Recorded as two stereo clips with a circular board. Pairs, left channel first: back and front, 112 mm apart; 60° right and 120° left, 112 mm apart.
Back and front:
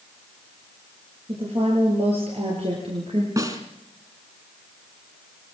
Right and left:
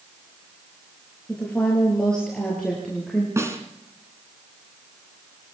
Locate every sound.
1.3 s a woman speaking: 20° left, 6.5 m; by 3.3 s 30° left, 6 m
3.4 s a snare drum: 55° left, 2.5 m